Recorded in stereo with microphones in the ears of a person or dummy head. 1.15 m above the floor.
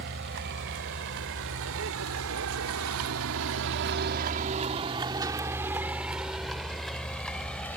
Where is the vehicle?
55° right (ahead or behind); by 7.8 s 10° left (ahead or behind).